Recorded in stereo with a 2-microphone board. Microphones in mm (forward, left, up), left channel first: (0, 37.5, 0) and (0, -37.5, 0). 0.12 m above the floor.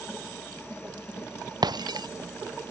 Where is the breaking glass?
65° right (ahead or behind).